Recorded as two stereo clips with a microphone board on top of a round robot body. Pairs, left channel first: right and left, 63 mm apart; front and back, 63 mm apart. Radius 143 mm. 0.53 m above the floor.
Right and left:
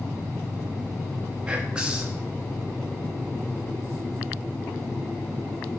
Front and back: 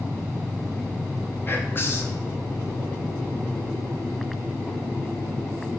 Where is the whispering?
25° left, 0.8 m.